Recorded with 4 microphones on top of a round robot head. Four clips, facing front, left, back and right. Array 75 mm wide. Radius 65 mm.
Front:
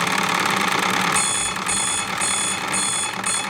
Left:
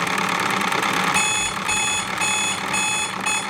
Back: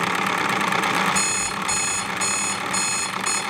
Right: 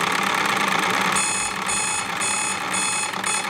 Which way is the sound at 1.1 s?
110° left.